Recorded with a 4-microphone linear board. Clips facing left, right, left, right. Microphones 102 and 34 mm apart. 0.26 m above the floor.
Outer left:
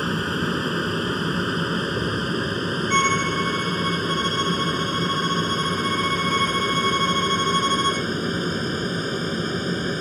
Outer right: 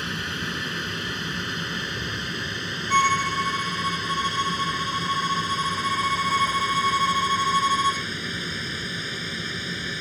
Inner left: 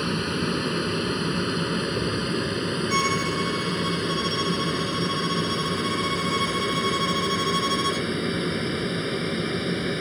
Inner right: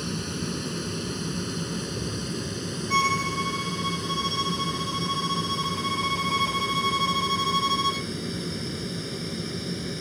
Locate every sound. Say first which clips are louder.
0.0 s an aircraft: outer left 7 dB, inner left 6 dB; 40° left (ahead or behind)
2.9 s a violin: outer right 2 dB, inner right 2 dB; 10° right (ahead or behind)